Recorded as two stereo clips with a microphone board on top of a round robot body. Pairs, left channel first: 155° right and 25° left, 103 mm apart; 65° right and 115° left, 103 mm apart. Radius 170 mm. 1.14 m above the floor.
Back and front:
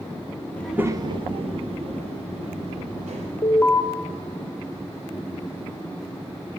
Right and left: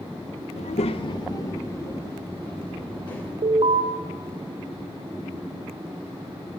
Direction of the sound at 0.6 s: 85° right.